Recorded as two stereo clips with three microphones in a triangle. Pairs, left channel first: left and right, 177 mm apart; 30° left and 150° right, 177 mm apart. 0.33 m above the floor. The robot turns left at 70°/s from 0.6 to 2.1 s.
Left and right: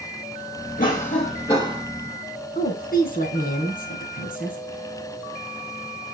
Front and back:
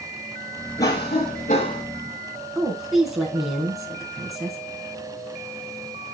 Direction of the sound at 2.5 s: 120° left.